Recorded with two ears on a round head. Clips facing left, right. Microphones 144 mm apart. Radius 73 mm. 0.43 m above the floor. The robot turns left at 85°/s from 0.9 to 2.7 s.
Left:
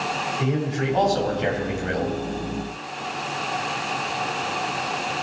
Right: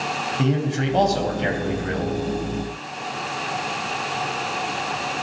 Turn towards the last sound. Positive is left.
turn(degrees=70)